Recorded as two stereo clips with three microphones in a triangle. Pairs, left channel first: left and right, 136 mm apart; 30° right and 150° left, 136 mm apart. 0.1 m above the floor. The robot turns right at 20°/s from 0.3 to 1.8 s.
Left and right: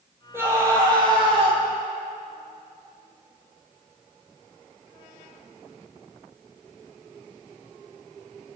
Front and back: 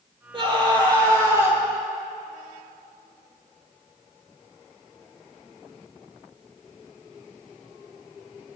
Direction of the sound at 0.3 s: 160° right.